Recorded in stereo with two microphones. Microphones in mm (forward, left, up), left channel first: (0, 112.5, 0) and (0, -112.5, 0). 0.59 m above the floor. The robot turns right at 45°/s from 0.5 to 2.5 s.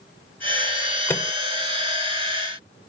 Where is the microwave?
10° left (ahead or behind); by 1.3 s 20° left (ahead or behind).